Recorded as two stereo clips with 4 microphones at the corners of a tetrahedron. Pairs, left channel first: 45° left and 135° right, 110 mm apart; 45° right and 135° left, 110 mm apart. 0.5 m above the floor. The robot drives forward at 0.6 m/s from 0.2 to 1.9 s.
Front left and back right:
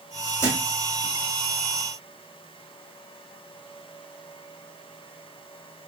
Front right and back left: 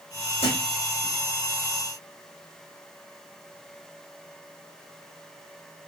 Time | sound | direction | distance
0.4 | a thud | 20° right | 2 m